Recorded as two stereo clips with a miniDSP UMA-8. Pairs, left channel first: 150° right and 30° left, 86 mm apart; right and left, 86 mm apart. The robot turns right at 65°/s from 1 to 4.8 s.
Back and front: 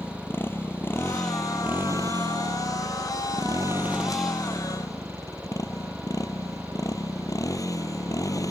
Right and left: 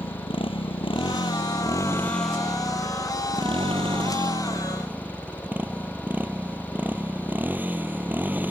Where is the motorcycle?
85° right; by 8.5 s 160° left.